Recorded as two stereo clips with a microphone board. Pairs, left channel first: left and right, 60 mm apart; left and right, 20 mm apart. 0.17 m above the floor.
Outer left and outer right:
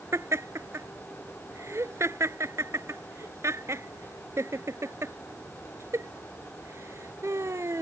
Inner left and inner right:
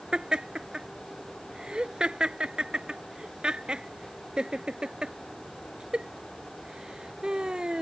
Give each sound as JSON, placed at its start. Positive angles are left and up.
{"t": 0.1, "sound": "laughter", "side_deg": -55}